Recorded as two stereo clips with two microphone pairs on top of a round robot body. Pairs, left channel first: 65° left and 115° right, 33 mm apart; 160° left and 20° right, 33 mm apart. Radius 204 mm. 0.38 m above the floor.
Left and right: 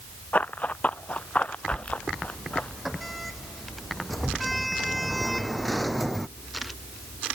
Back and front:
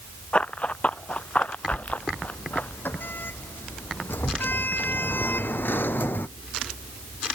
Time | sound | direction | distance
0.3 | running footsteps | 105° left | ?
1.7 | a sliding door | 155° left | ?